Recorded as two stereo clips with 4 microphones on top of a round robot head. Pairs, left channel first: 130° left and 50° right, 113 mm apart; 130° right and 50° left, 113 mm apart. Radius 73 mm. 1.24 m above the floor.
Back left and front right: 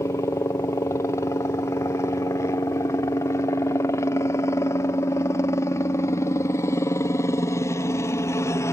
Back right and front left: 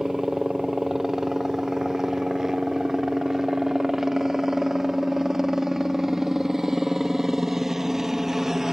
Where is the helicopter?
130° left.